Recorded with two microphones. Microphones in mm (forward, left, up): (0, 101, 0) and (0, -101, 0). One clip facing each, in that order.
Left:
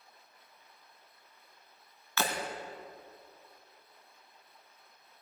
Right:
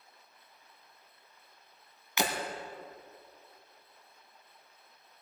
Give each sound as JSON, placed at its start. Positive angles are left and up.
{"t": 2.2, "sound": "breaking glass", "side_deg": -20, "distance_m": 1.6}